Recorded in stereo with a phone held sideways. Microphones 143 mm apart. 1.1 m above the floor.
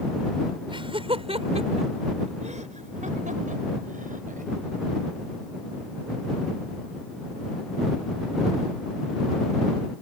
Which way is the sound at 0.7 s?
35° right (ahead or behind).